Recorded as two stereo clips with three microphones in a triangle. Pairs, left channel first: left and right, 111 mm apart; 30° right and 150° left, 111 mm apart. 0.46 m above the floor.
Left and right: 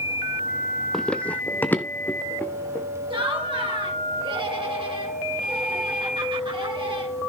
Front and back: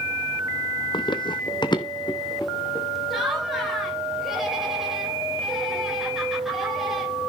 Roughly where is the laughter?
Behind right.